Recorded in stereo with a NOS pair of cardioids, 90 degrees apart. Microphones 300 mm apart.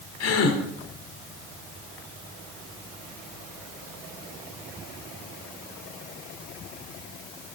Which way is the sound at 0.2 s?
55° left.